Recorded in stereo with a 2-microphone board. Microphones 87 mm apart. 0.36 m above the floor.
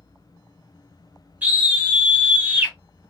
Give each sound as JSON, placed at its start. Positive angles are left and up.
{"t": 1.4, "sound": "a scream", "side_deg": -20, "distance_m": 1.3}